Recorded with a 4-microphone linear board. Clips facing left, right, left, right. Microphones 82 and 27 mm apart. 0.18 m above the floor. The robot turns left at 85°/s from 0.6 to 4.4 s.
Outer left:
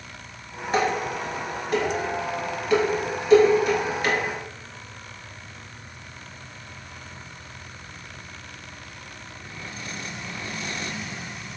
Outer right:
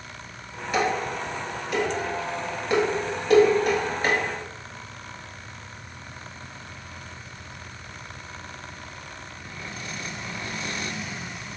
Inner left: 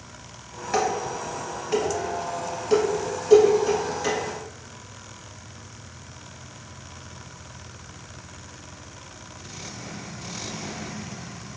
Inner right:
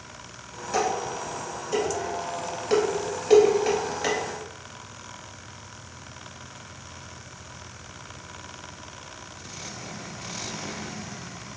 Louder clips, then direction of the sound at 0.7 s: Outer left 1 dB, inner left 1 dB; 45° left (ahead or behind).